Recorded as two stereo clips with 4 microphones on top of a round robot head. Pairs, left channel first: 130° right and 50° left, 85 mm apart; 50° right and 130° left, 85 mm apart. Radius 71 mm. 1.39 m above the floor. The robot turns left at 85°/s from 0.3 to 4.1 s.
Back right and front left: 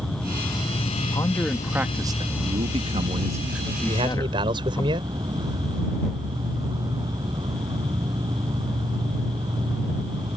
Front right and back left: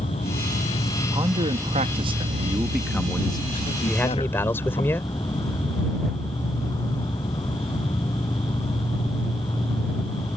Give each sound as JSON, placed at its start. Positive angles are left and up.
{"t": 0.0, "sound": "an insect", "azimuth_deg": -35}
{"t": 1.1, "sound": "a man speaking", "azimuth_deg": 180}
{"t": 3.9, "sound": "a man speaking", "azimuth_deg": 35}